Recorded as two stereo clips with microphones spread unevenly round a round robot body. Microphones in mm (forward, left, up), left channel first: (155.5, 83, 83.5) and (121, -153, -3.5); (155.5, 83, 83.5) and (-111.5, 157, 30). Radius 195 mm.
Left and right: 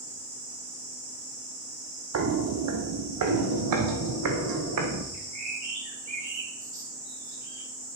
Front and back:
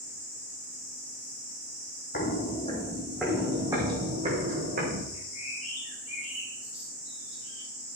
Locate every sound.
2.1 s footsteps: 60° right, 1.2 m; by 5.0 s 125° right, 1.8 m
5.1 s a bird: 90° right, 5 m